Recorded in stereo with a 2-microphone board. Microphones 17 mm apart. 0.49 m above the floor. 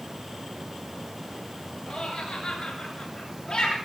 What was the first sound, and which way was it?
Laughter, 60° left (ahead or behind).